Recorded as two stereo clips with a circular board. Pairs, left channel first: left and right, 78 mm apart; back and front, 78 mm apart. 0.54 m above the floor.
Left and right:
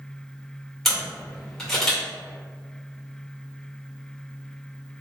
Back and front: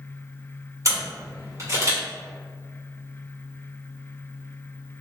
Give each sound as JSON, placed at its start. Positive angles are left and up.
{"t": 0.8, "sound": "a camera shutter", "azimuth_deg": 5, "distance_m": 1.7}